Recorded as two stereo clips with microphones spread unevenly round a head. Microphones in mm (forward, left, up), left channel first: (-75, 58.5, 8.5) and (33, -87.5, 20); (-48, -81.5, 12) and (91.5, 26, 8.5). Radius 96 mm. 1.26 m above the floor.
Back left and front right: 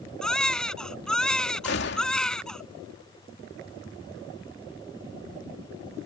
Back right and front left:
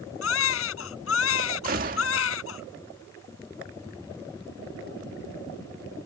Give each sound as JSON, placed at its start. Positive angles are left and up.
{"t": 0.2, "sound": "a baby crying", "azimuth_deg": -145}
{"t": 1.6, "sound": "a gunshot", "azimuth_deg": 90}